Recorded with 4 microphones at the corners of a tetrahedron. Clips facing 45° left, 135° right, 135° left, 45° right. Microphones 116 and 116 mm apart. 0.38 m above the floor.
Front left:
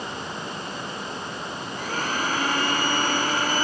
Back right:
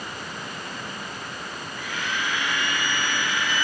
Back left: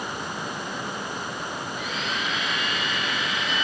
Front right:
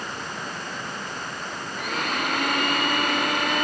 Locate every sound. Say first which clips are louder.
1.8 s a blender: front left 3 dB, front right 6 dB; 5° right